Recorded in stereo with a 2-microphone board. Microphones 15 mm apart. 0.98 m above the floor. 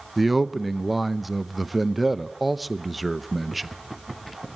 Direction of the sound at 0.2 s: 10° right (ahead or behind).